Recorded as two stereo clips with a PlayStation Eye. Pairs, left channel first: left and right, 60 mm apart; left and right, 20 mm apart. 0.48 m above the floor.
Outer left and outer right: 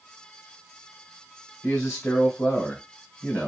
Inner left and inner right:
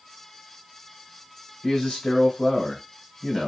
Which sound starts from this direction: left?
A man speaking, at 1.6 s.